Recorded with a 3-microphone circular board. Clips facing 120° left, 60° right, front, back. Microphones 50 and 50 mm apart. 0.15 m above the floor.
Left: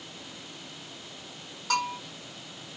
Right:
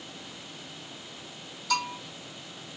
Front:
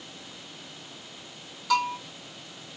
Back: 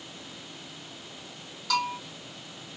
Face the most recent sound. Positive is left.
turn(degrees=80)